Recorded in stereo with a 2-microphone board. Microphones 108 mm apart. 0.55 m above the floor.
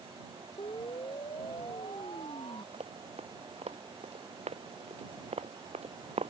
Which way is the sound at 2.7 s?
70° right (ahead or behind).